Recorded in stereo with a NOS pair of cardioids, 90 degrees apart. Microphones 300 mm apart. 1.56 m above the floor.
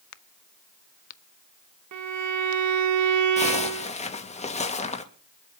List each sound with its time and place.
0.1 s a crack: 65° left, 0.8 m
1.9 s a violin: 65° right, 2.5 m
3.4 s a zipper: 20° left, 2.5 m